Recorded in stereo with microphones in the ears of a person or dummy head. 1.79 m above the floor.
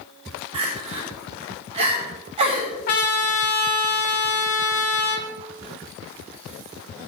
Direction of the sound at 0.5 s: 35° right (ahead or behind).